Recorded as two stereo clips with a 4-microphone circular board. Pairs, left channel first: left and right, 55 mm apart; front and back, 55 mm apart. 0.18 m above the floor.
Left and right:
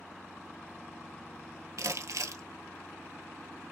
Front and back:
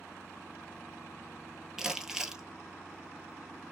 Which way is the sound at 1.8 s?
100° right.